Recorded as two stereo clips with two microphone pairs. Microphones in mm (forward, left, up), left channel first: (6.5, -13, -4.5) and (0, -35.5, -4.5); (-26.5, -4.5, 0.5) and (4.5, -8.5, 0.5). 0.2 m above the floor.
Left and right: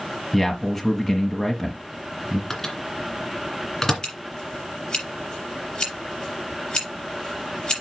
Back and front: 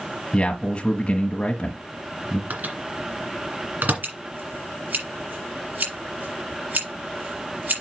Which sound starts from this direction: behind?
A man speaking, at 0.3 s.